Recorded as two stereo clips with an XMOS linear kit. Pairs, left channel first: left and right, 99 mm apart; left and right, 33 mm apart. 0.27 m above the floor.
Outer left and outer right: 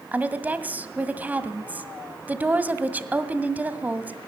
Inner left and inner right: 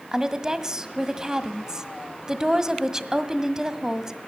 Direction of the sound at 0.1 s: 15° right (ahead or behind).